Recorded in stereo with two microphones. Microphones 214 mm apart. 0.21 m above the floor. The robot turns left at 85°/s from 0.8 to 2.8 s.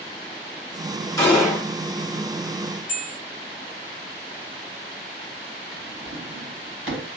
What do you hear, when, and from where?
1.2 s a gunshot: 20° left, 2 m; by 1.7 s 25° right, 2 m
2.9 s a bell: 35° left (ahead or behind), 2.5 m
5.7 s a drawer: 70° right (ahead or behind), 2 m